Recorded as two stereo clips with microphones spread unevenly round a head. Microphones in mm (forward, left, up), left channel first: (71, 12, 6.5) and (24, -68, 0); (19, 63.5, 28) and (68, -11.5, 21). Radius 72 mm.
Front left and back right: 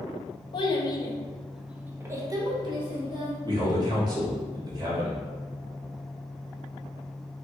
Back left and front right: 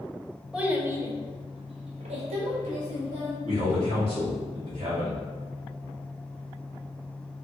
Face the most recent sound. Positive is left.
turn(degrees=-75)